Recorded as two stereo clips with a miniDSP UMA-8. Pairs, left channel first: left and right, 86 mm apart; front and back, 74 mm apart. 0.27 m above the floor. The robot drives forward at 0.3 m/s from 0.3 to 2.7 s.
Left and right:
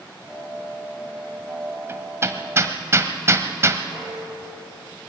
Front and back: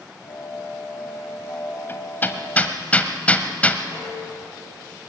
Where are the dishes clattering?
80° left, 8 m.